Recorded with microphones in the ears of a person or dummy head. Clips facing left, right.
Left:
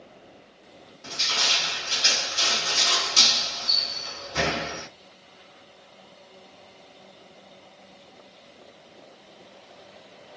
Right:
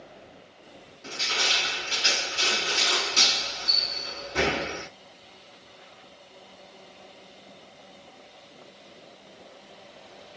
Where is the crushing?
55° left (ahead or behind), 2 m.